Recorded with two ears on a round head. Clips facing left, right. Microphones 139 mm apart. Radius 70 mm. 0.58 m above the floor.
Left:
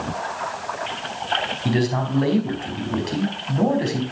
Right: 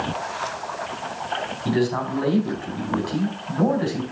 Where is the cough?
I don't hear a cough.